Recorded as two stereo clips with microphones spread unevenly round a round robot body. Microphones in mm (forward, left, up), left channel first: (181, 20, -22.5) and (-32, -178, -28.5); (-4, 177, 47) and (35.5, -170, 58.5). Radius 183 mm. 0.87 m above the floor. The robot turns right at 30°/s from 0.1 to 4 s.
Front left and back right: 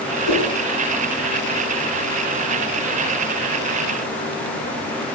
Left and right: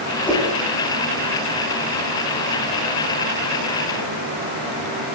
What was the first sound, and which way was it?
A whoosh, 10° left.